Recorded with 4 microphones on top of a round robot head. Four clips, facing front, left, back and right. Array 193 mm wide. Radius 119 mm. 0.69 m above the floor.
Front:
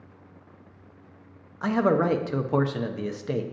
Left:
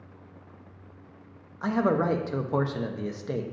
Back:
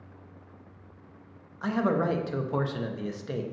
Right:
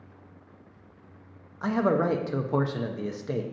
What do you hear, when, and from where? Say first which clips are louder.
1.6 s a man speaking: even, front 4 dB; straight ahead, 0.7 m